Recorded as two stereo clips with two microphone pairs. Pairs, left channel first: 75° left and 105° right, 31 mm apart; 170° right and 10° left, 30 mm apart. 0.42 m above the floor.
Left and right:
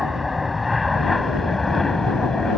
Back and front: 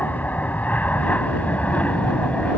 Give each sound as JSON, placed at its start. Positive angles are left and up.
{"t": 0.0, "sound": "an aircraft", "azimuth_deg": 175}